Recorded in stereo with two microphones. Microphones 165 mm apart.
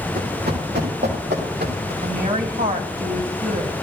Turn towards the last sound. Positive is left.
turn(degrees=-55)  # may be behind; listen again after turning